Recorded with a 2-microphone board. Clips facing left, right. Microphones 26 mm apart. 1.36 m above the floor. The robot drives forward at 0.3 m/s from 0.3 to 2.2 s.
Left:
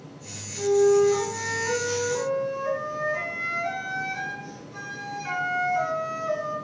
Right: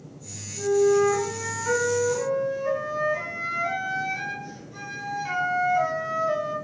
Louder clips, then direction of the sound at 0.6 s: Left 1 dB; 10° left (ahead or behind).